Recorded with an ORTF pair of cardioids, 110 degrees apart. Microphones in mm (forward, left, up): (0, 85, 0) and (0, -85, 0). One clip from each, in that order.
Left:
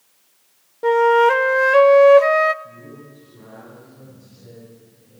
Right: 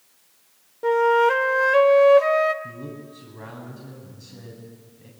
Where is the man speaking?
65° right, 8.5 m.